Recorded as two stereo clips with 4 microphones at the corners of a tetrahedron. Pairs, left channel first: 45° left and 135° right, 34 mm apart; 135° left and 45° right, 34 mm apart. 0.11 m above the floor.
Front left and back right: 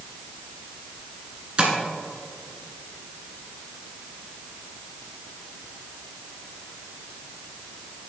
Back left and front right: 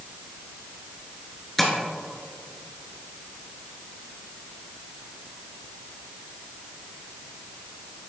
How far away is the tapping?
About 1.4 m.